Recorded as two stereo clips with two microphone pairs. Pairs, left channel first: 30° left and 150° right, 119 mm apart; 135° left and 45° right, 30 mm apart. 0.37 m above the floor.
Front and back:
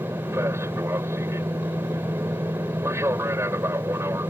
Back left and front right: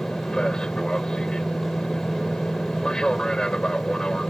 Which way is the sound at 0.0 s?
170° left.